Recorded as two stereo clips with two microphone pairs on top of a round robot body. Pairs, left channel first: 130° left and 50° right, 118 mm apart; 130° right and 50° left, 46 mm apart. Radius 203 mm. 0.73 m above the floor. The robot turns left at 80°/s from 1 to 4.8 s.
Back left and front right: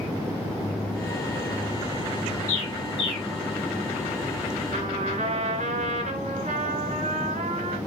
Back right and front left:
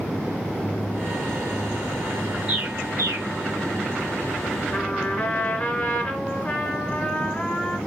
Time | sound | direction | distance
2.5 | a bird | 120° left | 2 m
4.7 | a trumpet | 50° right | 3 m